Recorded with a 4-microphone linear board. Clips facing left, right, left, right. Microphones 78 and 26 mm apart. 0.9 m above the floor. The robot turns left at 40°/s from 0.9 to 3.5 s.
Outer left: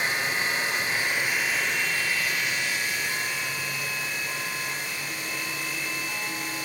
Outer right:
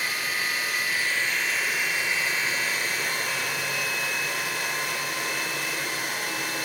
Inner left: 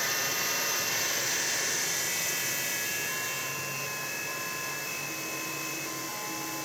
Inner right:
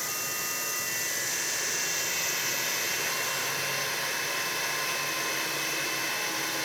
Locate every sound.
0.0 s running water: 25° left, 3 m; by 6.7 s 80° right, 3 m